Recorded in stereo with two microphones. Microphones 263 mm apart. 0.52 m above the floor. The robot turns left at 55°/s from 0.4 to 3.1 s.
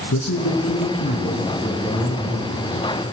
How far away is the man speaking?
About 5 m.